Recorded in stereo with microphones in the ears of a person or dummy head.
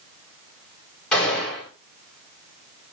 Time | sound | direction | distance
1.1 | a gunshot | 5° left (ahead or behind) | 3.5 m